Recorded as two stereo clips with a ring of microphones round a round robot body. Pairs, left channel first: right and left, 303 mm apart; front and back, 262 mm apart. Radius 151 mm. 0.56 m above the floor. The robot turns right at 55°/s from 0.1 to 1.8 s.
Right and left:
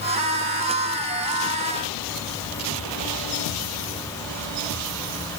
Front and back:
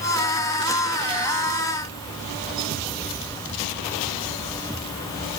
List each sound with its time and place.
Only background noise.